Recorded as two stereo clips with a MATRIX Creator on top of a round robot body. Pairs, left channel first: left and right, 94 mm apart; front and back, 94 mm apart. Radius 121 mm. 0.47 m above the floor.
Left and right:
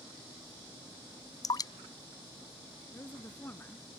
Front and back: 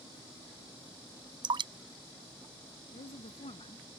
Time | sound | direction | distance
1.4 | dripping | 145° left | ?
2.9 | a woman speaking | 20° left | ?